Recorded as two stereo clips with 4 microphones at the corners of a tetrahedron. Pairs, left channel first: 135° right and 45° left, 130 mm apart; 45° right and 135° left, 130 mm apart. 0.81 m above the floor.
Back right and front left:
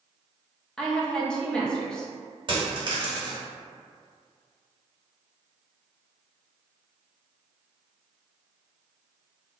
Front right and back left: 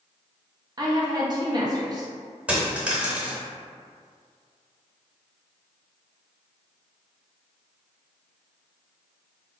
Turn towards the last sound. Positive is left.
turn(degrees=60)